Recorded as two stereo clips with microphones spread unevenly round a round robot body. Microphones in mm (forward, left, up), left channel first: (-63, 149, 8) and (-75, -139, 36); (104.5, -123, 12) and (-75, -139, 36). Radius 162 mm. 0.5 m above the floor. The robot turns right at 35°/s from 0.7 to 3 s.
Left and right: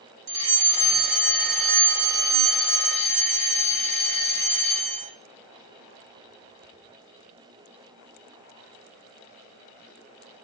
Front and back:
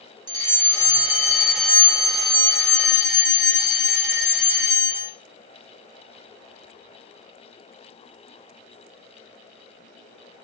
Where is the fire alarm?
110° right, 4 m; by 5.1 s 25° right, 4 m.